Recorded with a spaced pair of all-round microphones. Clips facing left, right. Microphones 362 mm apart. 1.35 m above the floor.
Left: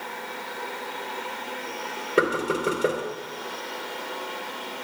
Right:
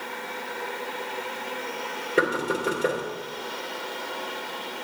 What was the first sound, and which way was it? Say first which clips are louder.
Knocking: left 2 dB; 10° left (ahead or behind).